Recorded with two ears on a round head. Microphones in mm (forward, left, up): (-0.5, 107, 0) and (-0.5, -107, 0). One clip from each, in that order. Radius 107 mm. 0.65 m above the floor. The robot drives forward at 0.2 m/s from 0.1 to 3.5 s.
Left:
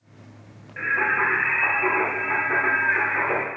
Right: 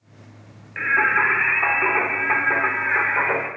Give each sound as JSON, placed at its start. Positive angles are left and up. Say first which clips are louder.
{"t": 0.8, "sound": "singing", "louder": "right 4 dB", "side_deg": -80, "distance_m": 0.8}